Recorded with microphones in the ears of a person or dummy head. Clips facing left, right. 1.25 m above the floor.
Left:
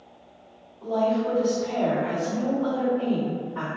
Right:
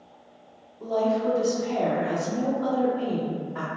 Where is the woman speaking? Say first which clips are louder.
Even; 75° right (ahead or behind), 1.2 m.